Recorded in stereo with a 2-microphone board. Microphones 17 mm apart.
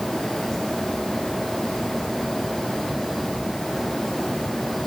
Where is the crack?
No crack in this recording.